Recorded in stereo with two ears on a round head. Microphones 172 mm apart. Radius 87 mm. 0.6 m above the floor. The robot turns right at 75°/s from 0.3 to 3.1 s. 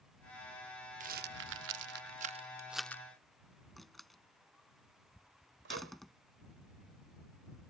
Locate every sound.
1.0 s a rattle: 40° right (ahead or behind); by 3.0 s 15° left (ahead or behind)
3.8 s a door slam: centre (ahead or behind)
5.7 s a microwave: 65° right (ahead or behind)